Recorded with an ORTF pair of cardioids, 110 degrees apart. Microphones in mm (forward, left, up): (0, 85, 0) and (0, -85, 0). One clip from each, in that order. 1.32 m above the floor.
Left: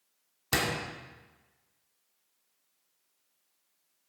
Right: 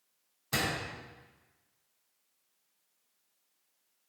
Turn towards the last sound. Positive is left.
turn(degrees=50)